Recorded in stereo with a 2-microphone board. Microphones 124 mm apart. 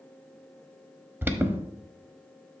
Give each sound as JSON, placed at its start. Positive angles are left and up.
{"t": 1.2, "sound": "an alarm", "side_deg": -20, "distance_m": 0.8}